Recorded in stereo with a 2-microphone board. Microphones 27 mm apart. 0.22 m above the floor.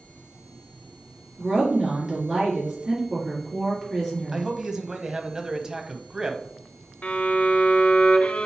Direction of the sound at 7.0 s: 55° left (ahead or behind).